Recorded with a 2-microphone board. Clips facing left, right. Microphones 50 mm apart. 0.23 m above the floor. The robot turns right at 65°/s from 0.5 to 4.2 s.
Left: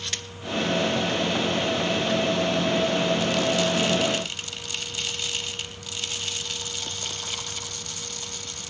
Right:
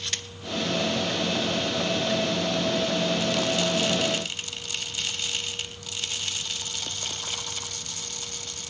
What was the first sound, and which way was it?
Only background noise.